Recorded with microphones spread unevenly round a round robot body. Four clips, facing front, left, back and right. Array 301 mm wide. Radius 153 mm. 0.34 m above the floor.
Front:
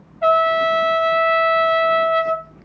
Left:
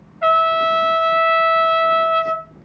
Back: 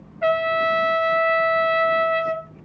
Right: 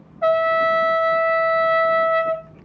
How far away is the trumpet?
About 1.7 m.